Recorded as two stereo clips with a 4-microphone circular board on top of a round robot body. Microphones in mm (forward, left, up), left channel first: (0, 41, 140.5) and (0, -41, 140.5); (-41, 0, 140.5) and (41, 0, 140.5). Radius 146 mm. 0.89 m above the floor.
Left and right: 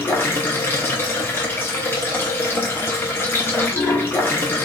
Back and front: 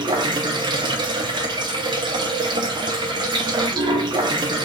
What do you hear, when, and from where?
0.0 s running water: 25° left, 0.9 m